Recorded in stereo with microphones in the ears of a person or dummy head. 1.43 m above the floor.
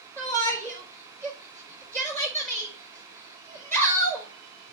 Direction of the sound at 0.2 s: 10° left (ahead or behind).